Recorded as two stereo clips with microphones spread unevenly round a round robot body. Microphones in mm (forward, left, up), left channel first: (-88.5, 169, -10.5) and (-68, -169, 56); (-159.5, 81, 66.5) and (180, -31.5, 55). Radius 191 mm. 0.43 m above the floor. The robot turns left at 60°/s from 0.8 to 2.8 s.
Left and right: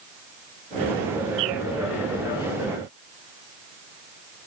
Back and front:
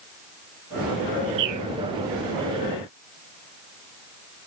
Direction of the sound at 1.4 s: 25° right.